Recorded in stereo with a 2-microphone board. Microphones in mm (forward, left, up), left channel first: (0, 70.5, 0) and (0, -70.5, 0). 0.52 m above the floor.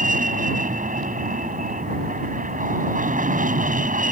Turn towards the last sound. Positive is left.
turn(degrees=-70)  # may be behind; listen again after turning